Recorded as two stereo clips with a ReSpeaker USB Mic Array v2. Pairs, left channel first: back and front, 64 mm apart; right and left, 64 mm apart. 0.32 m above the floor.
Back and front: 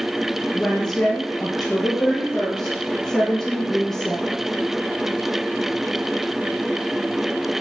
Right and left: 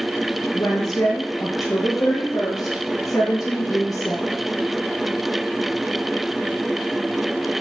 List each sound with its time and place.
0.5 s a woman speaking: 100° right, 4.5 m